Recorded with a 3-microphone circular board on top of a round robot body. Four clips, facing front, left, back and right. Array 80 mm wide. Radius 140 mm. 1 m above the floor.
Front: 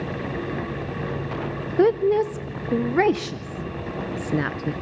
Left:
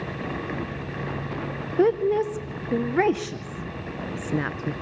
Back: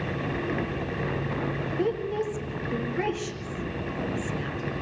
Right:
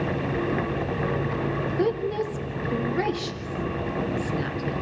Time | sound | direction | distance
1.8 | a woman speaking | 30° left | 0.7 m